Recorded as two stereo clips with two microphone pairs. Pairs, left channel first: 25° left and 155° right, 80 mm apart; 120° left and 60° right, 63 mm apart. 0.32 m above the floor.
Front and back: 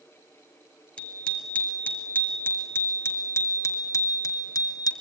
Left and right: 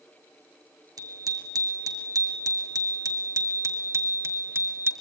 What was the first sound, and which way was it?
A bicycle bell, 50° right.